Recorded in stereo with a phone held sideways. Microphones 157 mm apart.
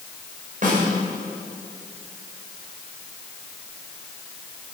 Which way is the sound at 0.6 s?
55° right (ahead or behind).